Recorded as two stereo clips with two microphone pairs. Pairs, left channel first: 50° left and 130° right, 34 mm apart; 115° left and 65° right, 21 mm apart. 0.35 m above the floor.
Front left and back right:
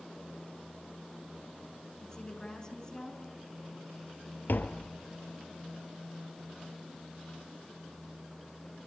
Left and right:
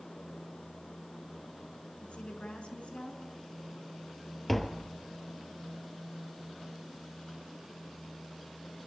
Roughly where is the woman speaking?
Behind left.